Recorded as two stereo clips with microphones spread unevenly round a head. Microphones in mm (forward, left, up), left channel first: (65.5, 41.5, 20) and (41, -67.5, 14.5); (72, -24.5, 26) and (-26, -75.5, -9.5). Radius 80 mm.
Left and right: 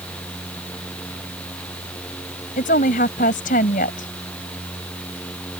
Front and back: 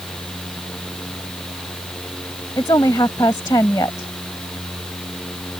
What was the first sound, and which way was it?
A woman speaking, 95° left.